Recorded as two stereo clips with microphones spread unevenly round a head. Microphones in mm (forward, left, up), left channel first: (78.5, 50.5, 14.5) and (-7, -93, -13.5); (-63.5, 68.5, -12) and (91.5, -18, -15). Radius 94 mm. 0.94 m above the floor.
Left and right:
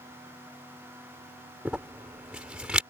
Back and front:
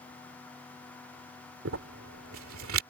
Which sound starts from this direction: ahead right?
Crumpling, at 1.6 s.